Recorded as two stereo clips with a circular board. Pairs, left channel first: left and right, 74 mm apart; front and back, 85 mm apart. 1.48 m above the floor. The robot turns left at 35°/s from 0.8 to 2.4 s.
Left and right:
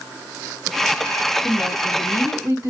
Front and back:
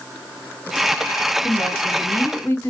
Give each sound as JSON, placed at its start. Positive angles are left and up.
{"t": 1.4, "sound": "a woman speaking", "azimuth_deg": -25, "distance_m": 2.0}